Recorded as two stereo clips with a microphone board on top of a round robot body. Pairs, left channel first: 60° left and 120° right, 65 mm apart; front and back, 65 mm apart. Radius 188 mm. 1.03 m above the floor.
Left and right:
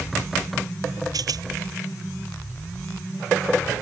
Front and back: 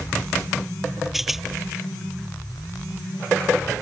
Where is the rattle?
90° right.